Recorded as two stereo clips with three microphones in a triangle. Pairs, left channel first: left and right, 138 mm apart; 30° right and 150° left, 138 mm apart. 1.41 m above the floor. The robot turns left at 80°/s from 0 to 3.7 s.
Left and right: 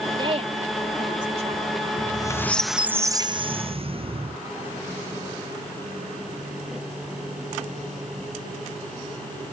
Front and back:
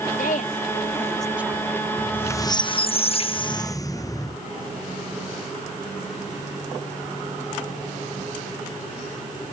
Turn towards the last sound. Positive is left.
turn(degrees=-85)